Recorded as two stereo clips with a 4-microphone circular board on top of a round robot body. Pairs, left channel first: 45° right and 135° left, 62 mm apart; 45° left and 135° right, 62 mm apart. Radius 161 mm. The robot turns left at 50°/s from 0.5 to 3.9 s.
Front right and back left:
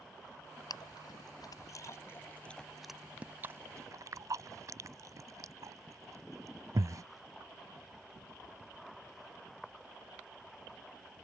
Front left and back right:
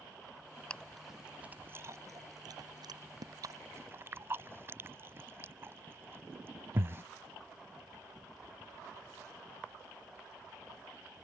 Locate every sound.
0.7 s chewing: 30° right; by 7.0 s 170° left